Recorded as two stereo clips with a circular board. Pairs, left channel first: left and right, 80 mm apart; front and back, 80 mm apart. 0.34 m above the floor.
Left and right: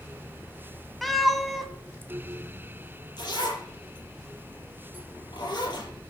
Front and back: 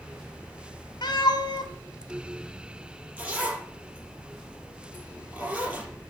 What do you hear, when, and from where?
1.0 s a cat meowing: straight ahead, 1.5 m
3.2 s a zipper: 105° left, 6.5 m